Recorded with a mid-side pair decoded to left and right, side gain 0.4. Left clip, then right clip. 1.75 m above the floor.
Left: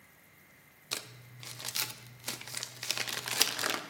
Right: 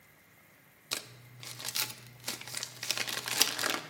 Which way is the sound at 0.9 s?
10° right.